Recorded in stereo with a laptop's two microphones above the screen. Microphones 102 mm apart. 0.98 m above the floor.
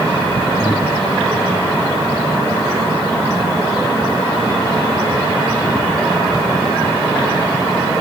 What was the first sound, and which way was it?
Breathing, 10° right (ahead or behind).